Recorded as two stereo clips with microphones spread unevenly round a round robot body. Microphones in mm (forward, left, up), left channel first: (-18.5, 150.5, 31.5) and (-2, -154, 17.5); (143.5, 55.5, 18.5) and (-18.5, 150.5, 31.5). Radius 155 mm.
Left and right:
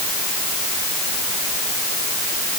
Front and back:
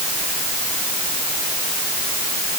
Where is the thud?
I don't hear a thud.